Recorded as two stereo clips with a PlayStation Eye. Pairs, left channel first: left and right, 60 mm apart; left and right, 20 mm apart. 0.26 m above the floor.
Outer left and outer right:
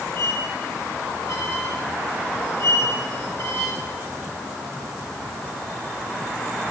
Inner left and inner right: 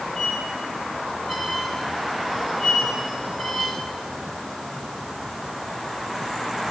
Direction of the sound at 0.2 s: 45° left (ahead or behind).